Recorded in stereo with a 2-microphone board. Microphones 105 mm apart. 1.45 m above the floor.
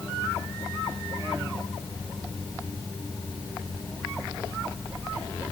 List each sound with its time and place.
Only background noise.